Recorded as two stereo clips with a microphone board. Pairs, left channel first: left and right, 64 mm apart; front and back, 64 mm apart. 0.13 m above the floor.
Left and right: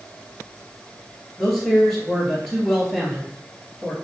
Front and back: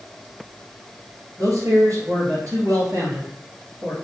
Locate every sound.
1.4 s a man speaking: straight behind, 2.0 m